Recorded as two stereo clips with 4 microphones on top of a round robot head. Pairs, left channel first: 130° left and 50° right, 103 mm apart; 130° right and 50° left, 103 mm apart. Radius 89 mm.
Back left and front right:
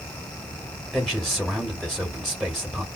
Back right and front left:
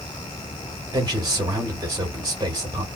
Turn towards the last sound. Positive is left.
turn(degrees=45)